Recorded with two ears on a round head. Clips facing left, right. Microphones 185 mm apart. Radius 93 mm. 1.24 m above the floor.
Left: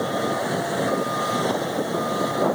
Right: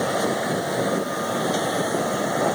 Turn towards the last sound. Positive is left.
No sound to turn to.